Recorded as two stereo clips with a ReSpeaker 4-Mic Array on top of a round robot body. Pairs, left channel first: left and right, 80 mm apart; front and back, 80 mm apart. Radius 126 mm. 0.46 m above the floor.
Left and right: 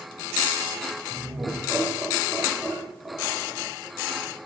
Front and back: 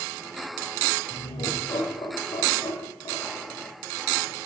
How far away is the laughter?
About 3 m.